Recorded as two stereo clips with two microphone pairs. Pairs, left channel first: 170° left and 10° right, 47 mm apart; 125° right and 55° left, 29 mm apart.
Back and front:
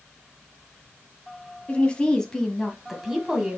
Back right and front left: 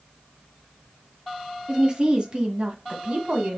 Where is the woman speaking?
110° left, 1.5 m; by 3.6 s 50° left, 1.4 m.